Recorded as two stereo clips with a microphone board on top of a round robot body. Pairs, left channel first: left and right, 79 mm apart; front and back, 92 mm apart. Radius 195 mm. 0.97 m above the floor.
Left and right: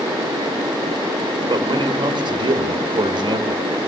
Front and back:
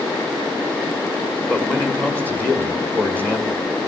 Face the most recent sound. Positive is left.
turn(degrees=-75)